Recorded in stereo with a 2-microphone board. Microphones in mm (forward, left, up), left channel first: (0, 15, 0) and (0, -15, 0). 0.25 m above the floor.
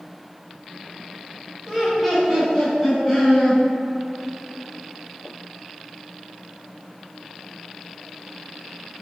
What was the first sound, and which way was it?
Laughter, centre (ahead or behind).